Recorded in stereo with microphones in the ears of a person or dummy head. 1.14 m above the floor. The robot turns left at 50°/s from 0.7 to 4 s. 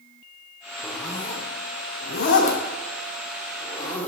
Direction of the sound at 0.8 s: 5° left (ahead or behind).